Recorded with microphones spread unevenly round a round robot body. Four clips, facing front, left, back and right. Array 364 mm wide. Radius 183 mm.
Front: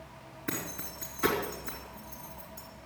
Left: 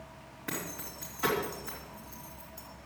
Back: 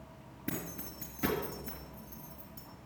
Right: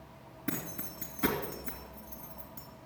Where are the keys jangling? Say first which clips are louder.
Right 1 dB, front 2 dB; 140° right, 2.5 m.